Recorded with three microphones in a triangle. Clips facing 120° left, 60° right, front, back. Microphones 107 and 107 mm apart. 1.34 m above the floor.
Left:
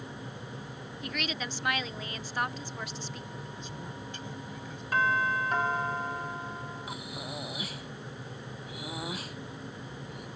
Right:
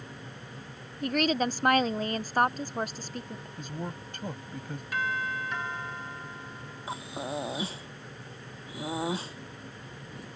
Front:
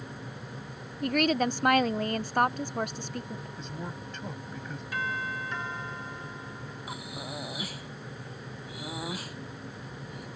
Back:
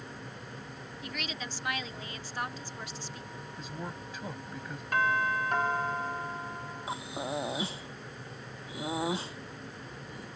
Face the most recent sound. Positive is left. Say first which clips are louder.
# right 4 dB, back 5 dB
turn(degrees=-120)